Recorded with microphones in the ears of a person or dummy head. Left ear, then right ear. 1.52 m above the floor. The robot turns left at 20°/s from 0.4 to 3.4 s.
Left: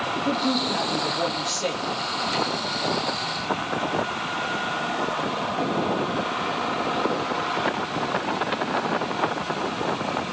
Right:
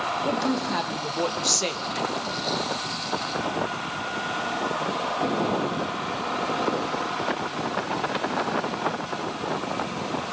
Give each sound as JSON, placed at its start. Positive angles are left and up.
{"t": 0.2, "sound": "a woman speaking", "side_deg": -60, "distance_m": 1.9}